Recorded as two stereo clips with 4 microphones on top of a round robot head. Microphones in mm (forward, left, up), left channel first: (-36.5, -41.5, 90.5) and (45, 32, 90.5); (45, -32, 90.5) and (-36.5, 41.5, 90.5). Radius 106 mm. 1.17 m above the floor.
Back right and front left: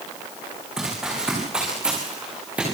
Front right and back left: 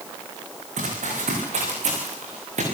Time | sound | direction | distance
0.8 | running footsteps | 125° left | 7.5 m